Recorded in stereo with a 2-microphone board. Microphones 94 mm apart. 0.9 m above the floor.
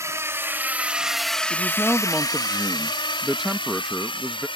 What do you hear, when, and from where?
0.0 s a drone: 30° right (ahead or behind); by 4.6 s 65° left (ahead or behind)
1.5 s a man speaking: 5° right (ahead or behind)